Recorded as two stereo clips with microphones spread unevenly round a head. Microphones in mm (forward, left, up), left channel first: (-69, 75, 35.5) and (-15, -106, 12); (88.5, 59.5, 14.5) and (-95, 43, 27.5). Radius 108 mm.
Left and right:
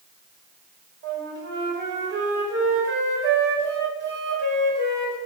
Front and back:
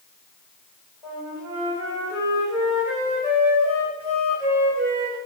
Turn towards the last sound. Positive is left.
turn(degrees=-95)